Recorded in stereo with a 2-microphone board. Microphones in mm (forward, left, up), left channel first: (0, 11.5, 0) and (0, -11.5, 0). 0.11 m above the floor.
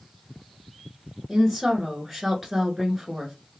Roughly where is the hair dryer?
I don't hear a hair dryer.